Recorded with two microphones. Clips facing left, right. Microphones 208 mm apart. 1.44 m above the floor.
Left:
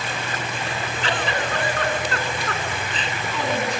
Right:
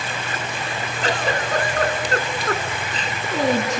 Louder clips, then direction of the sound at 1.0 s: Right 3 dB; 40° right (ahead or behind).